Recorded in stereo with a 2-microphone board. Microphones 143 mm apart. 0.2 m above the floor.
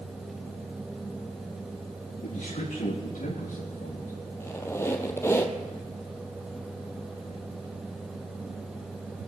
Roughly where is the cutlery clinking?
I don't hear cutlery clinking.